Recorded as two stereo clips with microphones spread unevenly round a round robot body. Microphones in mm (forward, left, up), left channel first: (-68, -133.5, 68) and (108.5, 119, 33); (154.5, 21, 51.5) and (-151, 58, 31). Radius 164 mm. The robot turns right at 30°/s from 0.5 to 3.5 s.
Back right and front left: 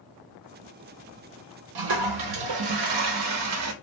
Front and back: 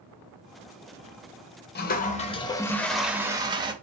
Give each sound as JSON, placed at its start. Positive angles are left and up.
{"t": 1.8, "sound": "a toilet flushing", "azimuth_deg": 45, "distance_m": 0.5}